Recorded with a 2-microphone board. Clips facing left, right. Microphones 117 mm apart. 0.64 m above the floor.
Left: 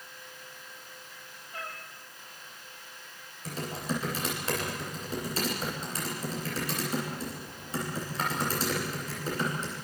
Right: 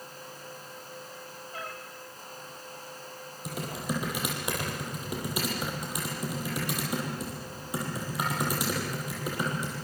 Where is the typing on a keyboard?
15° right (ahead or behind), 8 m.